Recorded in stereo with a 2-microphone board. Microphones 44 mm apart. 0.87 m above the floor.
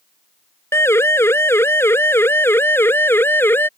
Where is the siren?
70° left (ahead or behind); by 3.7 s 55° left (ahead or behind).